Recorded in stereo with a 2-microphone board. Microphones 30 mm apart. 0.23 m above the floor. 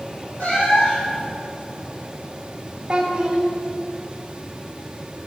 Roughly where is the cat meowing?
Left.